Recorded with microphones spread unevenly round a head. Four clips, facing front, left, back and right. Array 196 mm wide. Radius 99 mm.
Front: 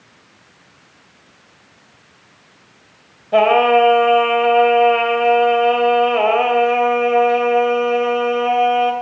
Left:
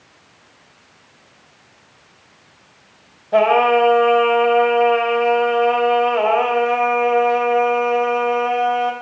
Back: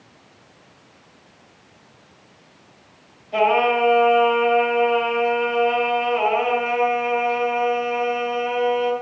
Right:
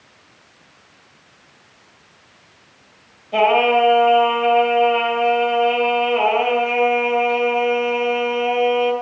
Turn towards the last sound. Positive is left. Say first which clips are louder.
# left 2 dB, front 6 dB
turn(degrees=25)